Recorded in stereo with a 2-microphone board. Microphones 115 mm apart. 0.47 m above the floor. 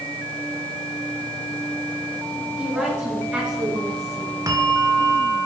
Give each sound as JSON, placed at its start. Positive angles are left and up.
{"t": 2.6, "sound": "a woman speaking", "side_deg": -10, "distance_m": 7.0}
{"t": 4.5, "sound": "a bell", "side_deg": -35, "distance_m": 1.2}